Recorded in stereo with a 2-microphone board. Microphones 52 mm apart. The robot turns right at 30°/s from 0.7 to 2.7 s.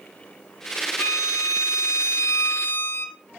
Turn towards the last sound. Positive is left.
turn(degrees=135)